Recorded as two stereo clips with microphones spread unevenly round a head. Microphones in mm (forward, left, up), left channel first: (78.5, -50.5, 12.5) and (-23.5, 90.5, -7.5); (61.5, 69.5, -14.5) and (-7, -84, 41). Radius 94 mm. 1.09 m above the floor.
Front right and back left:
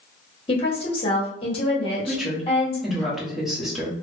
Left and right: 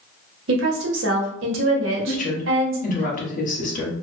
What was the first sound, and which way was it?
A woman speaking, 115° right.